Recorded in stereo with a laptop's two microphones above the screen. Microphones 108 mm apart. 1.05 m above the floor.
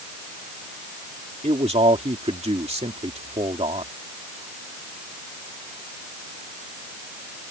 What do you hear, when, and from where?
1.4 s a man speaking: 75° right (ahead or behind)